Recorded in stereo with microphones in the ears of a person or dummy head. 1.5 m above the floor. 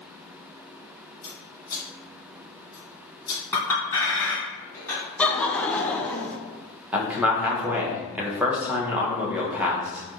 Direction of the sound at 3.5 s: 15° left (ahead or behind).